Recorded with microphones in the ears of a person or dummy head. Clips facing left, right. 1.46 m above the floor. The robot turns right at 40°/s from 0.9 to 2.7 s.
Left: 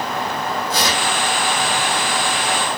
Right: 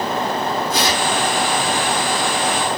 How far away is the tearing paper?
About 5.5 m.